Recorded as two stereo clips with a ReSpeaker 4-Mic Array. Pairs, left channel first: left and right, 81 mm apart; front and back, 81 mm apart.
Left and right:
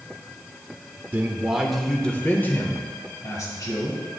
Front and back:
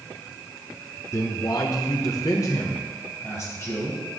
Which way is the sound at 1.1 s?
35° right.